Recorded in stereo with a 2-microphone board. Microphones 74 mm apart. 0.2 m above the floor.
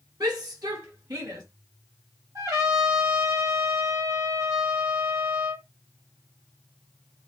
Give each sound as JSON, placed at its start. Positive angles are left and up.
{"t": 0.2, "sound": "a shout", "side_deg": -65, "distance_m": 3.0}
{"t": 2.4, "sound": "a trumpet", "side_deg": -55, "distance_m": 3.5}